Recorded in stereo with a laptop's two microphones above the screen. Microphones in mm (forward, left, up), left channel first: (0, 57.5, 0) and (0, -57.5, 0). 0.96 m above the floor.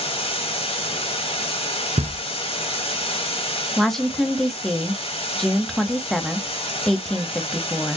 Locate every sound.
0.0 s running water: 55° left (ahead or behind), 1.1 m
2.0 s knocking: 60° right (ahead or behind), 0.6 m
3.8 s a woman speaking: 5° left (ahead or behind), 1.2 m